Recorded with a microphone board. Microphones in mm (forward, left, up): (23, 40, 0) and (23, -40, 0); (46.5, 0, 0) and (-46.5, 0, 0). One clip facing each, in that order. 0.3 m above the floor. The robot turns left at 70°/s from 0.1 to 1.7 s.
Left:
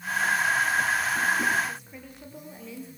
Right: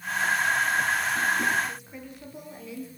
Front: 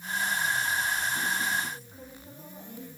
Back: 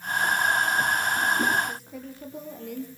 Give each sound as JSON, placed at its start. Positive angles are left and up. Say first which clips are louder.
{"t": 1.7, "sound": "a woman speaking", "louder": "right 1 dB, back 6 dB", "azimuth_deg": -175, "distance_m": 7.0}